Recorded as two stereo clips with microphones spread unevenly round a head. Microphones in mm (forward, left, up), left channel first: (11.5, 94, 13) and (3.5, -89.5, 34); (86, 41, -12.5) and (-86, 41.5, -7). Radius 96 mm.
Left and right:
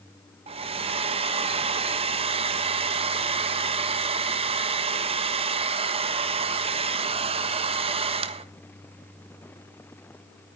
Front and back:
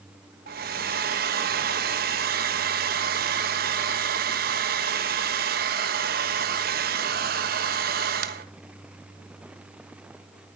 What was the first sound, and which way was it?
A hair dryer, 150° right.